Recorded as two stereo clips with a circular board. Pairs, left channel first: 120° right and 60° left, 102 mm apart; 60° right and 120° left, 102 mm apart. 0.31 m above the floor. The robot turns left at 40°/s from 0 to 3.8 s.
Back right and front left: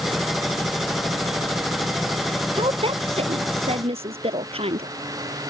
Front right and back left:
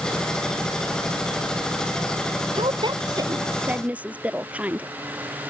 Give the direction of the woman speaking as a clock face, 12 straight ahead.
9 o'clock.